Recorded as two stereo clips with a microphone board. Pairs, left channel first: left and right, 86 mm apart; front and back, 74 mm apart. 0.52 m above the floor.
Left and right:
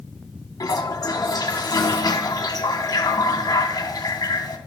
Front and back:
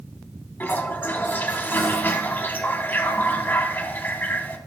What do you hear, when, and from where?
0.6 s a toilet flushing: 55° left, 0.8 m